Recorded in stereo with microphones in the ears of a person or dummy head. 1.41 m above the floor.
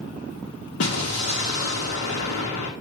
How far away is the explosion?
About 1.7 m.